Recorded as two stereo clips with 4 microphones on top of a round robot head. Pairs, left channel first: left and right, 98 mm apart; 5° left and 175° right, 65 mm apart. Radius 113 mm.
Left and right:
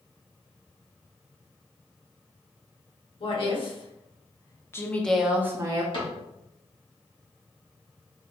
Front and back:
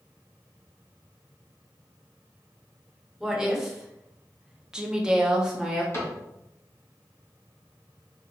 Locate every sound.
3.2 s a woman speaking: 100° left, 2.0 m; by 5.8 s 100° right, 1.0 m
5.9 s a cupboard door: 50° left, 2 m